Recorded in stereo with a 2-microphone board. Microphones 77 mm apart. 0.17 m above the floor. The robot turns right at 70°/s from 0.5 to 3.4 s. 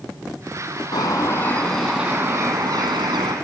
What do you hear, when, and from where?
0.9 s a bird: 110° left, 1.4 m; by 3.4 s 80° right, 1.4 m